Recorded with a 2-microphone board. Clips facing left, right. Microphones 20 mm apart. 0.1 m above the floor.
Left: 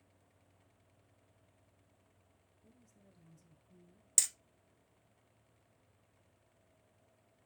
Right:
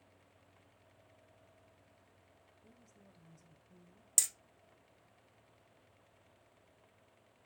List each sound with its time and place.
2.6 s a woman speaking: 20° right (ahead or behind), 1.3 m
4.2 s hammering: 10° left (ahead or behind), 0.7 m